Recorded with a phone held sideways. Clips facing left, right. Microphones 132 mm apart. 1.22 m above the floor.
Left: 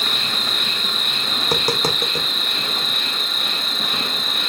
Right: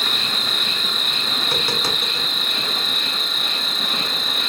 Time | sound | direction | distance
0.0 | an insect | centre (ahead or behind) | 0.8 m
1.4 | tapping | 40° left (ahead or behind) | 0.7 m